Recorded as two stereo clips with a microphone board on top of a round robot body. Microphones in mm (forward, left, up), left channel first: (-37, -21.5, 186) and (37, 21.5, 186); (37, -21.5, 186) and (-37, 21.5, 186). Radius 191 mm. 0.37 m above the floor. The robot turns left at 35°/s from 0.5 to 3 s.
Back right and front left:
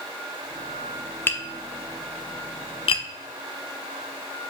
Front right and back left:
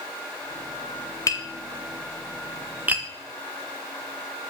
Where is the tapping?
80° right, 0.6 m; by 3.0 s 145° right, 0.6 m.